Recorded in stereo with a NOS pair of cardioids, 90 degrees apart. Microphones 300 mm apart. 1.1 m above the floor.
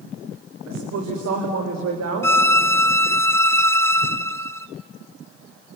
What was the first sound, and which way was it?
A woman speaking, 65° right.